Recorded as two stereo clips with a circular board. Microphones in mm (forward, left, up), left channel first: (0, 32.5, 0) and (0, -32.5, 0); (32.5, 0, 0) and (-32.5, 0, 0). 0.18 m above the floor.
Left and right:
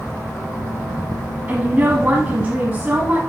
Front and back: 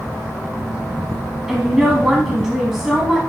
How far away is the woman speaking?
About 1.1 m.